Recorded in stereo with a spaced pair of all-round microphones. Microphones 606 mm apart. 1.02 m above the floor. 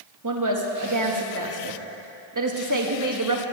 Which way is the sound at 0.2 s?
30° right (ahead or behind).